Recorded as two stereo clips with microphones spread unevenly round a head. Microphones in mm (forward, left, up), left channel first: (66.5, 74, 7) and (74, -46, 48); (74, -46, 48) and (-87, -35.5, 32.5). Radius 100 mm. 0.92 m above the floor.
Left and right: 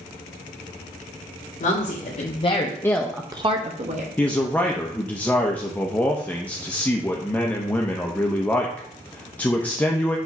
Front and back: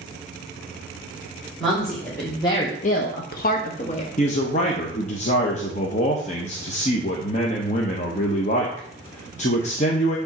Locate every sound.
1.6 s a woman speaking: 85° left, 2 m; by 4.1 s 55° right, 1.6 m
4.2 s a man speaking: 35° left, 1.0 m